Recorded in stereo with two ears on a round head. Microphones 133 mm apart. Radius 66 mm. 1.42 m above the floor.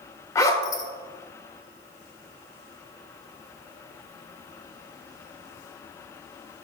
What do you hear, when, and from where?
0.3 s a zipper: 20° left (ahead or behind), 1.3 m